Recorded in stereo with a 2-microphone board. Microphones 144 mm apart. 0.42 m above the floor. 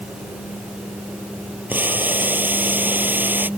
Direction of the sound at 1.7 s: 15° right (ahead or behind).